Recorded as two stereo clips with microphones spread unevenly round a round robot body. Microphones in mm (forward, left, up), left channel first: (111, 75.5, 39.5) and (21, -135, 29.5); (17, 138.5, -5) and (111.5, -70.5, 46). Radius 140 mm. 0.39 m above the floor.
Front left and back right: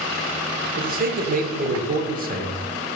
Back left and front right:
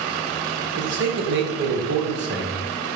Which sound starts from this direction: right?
A man speaking, at 0.8 s.